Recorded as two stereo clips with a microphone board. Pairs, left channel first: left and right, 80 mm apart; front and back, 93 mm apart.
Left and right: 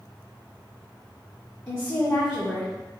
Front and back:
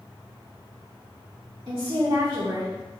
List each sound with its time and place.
1.7 s a woman speaking: 135° left, 1.5 m; by 2.7 s 160° left, 1.1 m